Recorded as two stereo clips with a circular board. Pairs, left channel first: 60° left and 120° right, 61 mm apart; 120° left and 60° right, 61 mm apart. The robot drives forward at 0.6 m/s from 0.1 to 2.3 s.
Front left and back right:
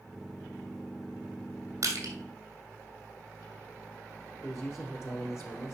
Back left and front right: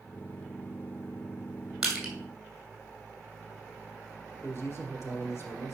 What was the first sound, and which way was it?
Crushing, 145° right.